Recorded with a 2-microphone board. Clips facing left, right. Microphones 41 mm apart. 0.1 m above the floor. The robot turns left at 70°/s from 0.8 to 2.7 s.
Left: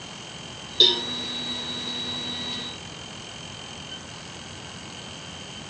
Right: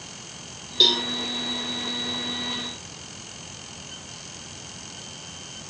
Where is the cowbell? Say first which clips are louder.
Even; 5° left (ahead or behind), 4 m; by 1.0 s 20° left (ahead or behind), 4 m.